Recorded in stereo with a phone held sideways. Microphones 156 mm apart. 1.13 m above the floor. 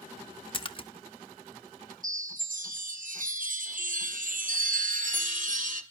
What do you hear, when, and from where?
0.5 s a splash: 35° left (ahead or behind), 0.8 m
2.0 s a chime: 60° right (ahead or behind), 1.1 m